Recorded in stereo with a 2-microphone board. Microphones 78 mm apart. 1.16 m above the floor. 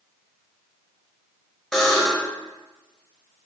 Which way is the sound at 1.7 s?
5° left (ahead or behind).